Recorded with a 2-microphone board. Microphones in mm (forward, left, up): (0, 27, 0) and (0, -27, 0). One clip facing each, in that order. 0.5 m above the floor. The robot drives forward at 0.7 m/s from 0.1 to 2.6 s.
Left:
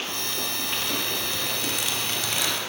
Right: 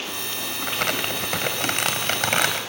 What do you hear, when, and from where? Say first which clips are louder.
0.6 s crumpling: right 7 dB; 70° right (ahead or behind), 3 m; by 2.6 s 60° right (ahead or behind), 3 m